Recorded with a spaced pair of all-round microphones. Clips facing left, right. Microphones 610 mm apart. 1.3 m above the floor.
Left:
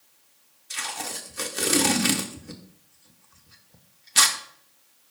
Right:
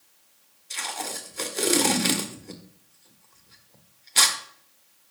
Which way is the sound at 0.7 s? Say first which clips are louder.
Right 2 dB; 35° left (ahead or behind).